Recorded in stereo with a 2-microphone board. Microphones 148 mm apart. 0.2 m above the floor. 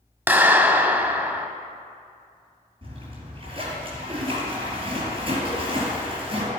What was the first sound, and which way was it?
A clap, 15° right (ahead or behind).